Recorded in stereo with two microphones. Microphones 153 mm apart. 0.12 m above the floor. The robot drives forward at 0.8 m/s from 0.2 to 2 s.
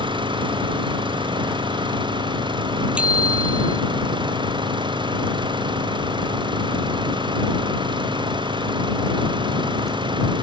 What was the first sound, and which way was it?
An engine running, 30° right (ahead or behind).